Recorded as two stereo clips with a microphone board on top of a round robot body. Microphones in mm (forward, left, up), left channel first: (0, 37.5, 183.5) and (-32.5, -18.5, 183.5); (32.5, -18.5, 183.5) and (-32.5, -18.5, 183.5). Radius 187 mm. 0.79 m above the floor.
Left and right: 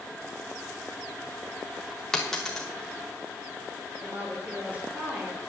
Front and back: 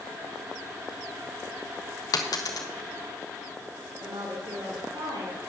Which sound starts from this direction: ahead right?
A dropped coin, at 2.1 s.